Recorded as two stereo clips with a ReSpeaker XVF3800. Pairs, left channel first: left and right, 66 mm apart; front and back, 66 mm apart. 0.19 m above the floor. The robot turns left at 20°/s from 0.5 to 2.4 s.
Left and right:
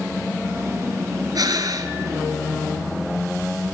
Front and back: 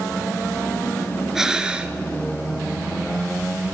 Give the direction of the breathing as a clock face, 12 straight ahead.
3 o'clock.